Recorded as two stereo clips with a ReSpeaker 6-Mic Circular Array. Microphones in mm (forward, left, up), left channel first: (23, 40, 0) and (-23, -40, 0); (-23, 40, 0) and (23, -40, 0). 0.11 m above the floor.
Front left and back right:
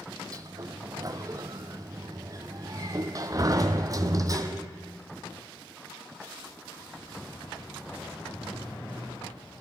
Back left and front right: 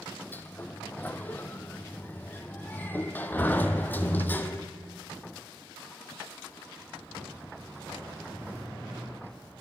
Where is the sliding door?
170° right, 0.6 m.